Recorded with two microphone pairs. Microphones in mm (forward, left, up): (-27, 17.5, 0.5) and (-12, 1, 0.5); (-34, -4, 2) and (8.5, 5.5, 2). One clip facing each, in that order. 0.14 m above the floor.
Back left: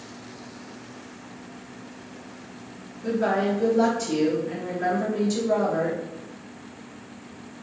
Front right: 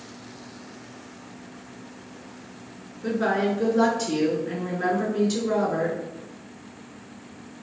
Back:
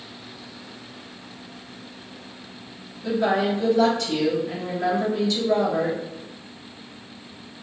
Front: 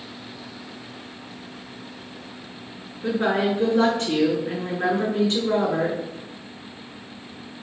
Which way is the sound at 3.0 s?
5° right.